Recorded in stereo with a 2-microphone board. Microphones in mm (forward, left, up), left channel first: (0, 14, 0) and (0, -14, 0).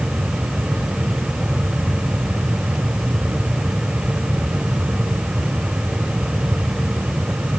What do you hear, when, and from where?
Only background noise.